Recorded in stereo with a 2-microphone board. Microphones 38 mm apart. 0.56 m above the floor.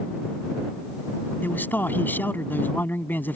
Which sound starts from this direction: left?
A man speaking, at 1.4 s.